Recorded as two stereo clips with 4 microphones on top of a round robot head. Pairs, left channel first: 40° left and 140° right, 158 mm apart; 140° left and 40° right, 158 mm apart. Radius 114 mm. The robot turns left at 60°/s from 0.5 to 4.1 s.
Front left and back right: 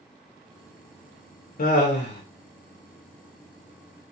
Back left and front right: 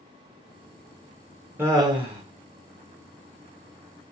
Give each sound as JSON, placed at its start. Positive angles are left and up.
{"t": 1.6, "sound": "laughter", "azimuth_deg": 30, "distance_m": 0.7}